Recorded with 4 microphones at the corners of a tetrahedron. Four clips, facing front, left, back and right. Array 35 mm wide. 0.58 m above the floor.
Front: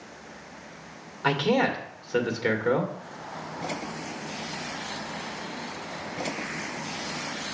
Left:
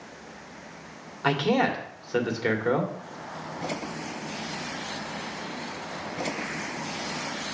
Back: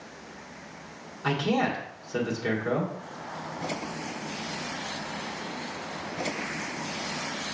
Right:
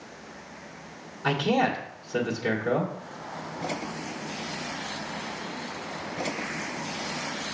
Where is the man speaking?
55° left, 1.6 m.